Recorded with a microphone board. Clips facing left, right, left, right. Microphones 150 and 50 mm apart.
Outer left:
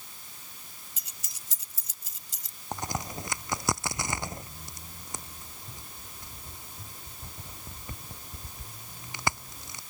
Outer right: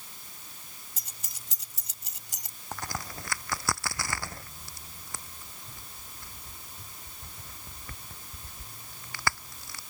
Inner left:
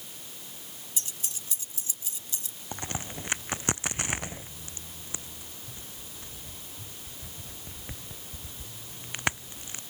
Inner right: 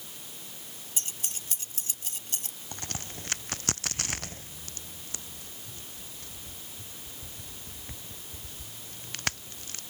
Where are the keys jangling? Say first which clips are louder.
Outer right 2 dB, inner right 1 dB; 45° right (ahead or behind); by 2.6 s 60° right (ahead or behind).